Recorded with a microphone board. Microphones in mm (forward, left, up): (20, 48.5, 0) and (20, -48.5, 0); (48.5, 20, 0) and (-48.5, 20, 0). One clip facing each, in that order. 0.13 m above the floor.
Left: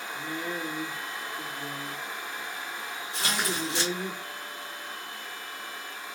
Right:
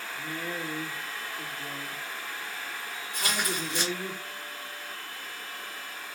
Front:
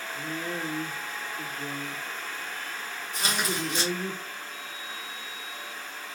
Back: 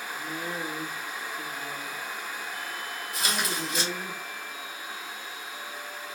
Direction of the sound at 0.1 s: 125° left.